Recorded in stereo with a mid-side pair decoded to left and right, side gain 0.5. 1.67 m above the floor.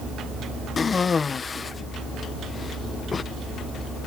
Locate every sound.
0.8 s a cough: 35° left